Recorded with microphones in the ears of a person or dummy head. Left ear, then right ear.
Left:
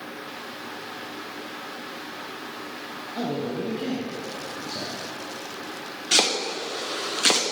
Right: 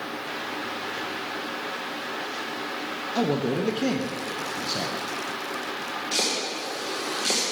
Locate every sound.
3.1 s a man speaking: 70° right (ahead or behind), 0.6 m
6.1 s chopping: 50° left (ahead or behind), 0.7 m